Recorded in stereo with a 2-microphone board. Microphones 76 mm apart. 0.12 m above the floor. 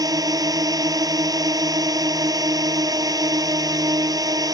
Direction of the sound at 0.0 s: 55° right (ahead or behind).